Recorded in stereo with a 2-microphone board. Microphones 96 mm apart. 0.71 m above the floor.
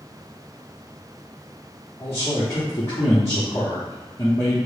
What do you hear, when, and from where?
2.0 s a man speaking: 25° left (ahead or behind), 0.9 m